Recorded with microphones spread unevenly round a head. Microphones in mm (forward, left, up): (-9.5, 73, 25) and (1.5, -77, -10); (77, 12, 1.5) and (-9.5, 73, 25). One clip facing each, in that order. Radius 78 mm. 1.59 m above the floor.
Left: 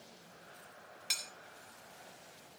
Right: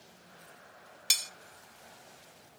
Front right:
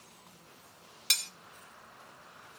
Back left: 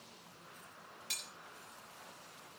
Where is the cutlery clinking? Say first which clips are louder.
Right 4 dB, front right 11 dB; 50° right, 1.6 m.